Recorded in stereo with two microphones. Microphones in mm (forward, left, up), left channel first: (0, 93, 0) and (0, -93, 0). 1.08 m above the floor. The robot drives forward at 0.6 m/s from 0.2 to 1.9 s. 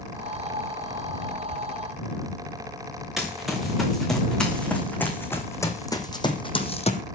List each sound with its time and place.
3.2 s running footsteps: centre (ahead or behind), 5.5 m; by 7.0 s 35° left (ahead or behind), 2.5 m